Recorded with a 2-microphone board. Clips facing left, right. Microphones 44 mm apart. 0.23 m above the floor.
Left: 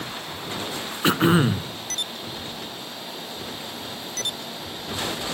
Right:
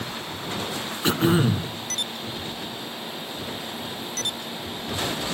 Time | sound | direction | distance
1.0 | throat clearing | 25° left (ahead or behind) | 1.2 m